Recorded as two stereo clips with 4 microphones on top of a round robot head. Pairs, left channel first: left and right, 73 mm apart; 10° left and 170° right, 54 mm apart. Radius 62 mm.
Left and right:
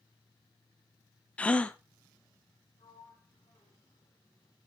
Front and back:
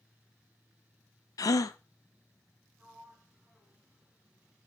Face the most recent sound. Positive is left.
turn(degrees=115)